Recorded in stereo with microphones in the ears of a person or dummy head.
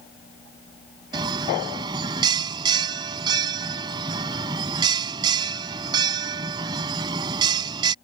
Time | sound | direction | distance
1.1 | a bell | 25° right (ahead or behind) | ?